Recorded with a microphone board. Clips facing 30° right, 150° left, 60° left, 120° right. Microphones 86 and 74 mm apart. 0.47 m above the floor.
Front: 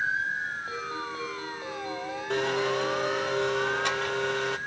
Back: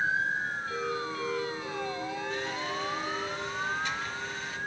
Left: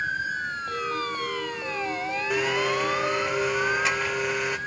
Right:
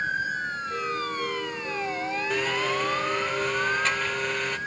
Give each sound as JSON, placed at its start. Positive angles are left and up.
{"t": 0.7, "sound": "a ringtone", "azimuth_deg": 25, "distance_m": 6.5}
{"t": 2.3, "sound": "a blender", "azimuth_deg": -20, "distance_m": 0.6}